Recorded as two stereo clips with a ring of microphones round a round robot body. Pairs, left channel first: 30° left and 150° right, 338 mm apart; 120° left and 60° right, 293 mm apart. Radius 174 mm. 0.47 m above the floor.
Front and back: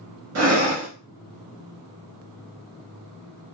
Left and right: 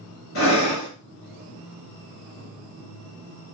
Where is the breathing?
165° left, 1.1 m.